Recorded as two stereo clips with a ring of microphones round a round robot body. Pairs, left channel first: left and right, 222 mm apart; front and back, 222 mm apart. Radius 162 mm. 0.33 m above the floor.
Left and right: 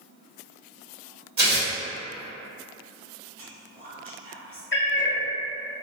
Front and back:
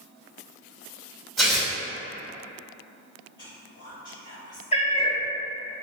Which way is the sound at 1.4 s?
85° right.